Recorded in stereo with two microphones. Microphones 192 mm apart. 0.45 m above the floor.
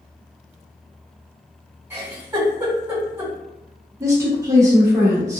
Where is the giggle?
10° right (ahead or behind), 1.7 m.